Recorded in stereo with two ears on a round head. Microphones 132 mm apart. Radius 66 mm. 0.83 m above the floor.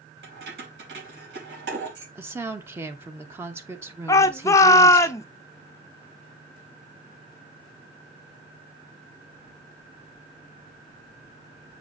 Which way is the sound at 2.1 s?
15° right (ahead or behind).